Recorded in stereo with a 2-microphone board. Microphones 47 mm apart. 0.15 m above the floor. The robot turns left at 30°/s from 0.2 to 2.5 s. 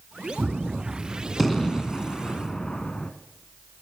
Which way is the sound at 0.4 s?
10° right (ahead or behind).